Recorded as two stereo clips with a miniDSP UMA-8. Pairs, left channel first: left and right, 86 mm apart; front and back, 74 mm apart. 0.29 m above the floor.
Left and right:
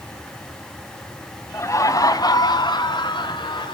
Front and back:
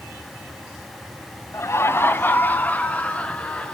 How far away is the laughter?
About 1.8 m.